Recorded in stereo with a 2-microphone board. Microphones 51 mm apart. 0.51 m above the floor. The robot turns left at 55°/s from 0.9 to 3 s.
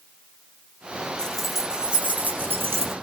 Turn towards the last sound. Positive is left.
turn(degrees=-85)